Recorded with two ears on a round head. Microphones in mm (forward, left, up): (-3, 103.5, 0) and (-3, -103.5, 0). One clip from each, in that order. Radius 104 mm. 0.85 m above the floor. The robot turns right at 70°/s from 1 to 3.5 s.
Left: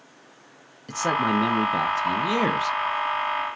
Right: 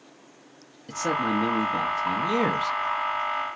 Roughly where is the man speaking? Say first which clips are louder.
Left 3 dB; ahead left.